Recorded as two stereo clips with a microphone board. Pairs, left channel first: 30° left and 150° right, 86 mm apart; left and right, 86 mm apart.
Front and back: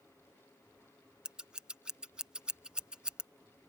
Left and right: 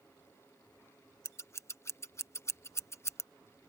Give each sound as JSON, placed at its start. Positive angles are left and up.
{"t": 1.2, "sound": "scissors", "azimuth_deg": 135}